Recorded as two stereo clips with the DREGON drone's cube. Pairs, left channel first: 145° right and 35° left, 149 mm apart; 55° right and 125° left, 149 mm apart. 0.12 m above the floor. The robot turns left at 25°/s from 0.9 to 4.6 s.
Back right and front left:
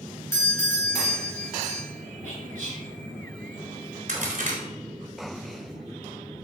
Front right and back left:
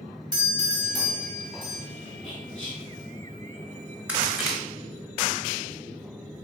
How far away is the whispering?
About 2.0 m.